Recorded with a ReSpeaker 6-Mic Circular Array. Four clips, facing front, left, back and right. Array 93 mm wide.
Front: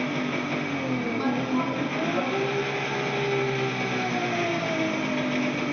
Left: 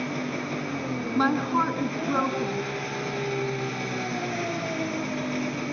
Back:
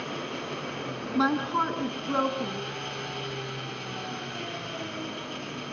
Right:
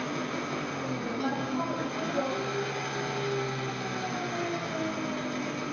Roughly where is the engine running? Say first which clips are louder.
Left 3 dB, front 7 dB; ahead.